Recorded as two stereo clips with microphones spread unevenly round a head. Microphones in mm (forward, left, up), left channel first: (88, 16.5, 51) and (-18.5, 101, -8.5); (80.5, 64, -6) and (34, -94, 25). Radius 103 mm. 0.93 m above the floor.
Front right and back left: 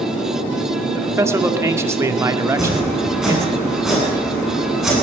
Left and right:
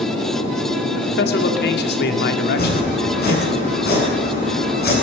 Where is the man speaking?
75° left, 2.5 m.